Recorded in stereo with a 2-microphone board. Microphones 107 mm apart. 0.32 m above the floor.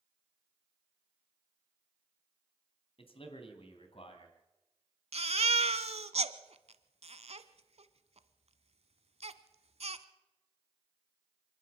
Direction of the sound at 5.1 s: 70° right (ahead or behind).